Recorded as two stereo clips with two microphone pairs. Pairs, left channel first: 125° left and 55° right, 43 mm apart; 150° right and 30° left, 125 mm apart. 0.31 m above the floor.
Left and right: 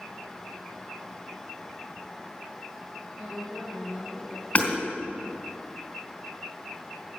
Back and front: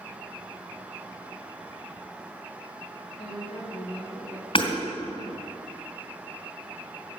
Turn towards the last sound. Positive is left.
turn(degrees=175)